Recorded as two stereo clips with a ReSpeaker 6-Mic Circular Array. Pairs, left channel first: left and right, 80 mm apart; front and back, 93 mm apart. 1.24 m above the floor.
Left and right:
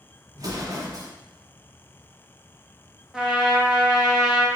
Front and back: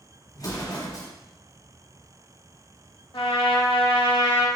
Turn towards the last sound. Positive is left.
turn(degrees=-5)